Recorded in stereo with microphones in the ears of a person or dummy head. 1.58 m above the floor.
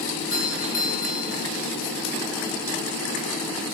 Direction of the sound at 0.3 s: 30° left (ahead or behind).